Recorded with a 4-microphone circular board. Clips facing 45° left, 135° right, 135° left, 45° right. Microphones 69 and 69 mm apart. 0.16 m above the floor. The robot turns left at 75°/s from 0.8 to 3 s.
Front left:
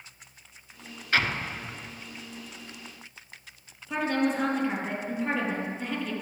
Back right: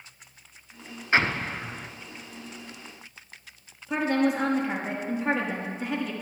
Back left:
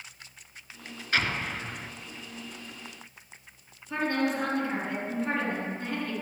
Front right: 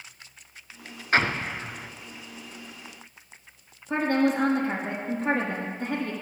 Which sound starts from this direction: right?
An explosion, at 1.1 s.